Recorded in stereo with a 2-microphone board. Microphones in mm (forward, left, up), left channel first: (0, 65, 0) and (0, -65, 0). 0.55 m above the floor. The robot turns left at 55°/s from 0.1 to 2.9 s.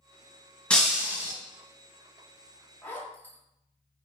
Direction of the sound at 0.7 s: 10° left.